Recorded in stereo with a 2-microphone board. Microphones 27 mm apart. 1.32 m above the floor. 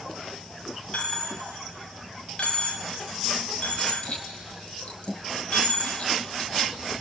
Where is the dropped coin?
45° left (ahead or behind), 2 m.